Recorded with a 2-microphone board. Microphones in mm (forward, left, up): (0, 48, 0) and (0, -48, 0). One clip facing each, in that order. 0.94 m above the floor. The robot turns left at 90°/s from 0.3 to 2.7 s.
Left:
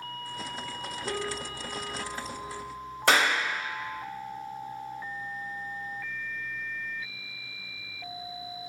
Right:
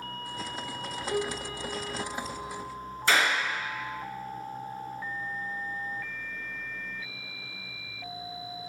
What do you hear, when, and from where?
1.1 s a piano: 100° left, 1.4 m; by 2.6 s 40° right, 1.4 m
3.1 s a clap: 70° left (ahead or behind), 0.9 m